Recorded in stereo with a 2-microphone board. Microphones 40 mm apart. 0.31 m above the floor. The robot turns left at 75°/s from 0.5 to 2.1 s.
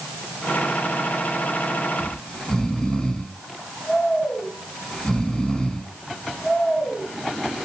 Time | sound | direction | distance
2.0 | snoring | 30° left (ahead or behind) | 3.5 m